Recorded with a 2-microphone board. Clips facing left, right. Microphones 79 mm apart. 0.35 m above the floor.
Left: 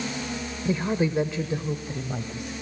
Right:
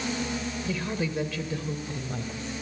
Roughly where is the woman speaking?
Left.